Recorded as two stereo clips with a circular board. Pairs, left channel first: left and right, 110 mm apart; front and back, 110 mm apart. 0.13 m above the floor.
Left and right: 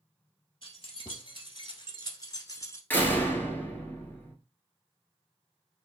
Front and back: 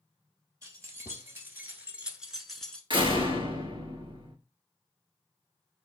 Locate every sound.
0.6 s keys jangling: 125° left, 1.6 m; by 2.8 s 70° left, 0.8 m
2.9 s a door slam: 160° left, 1.2 m